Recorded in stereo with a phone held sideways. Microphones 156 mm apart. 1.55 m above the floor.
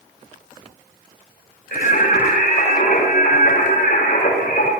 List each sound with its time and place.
1.7 s singing: 90° left, 6 m